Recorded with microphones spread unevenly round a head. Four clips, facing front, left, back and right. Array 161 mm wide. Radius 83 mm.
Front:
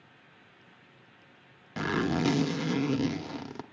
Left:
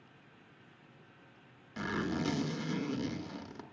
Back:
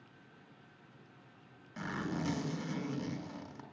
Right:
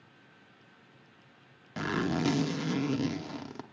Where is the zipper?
30° right, 0.7 m.